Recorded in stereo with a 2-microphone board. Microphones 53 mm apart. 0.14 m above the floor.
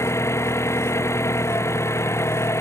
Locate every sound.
0.0 s an engine running: 60° left (ahead or behind)